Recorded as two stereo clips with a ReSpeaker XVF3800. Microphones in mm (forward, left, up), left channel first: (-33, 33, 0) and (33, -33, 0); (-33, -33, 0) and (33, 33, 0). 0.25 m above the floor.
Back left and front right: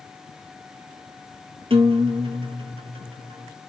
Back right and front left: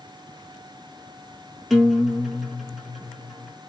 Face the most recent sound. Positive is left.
turn(degrees=-45)